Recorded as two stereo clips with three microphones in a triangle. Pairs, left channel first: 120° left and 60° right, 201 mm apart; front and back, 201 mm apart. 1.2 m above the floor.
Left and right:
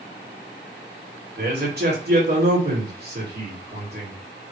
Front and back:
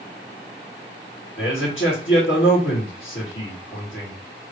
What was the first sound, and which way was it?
A man speaking, 20° right.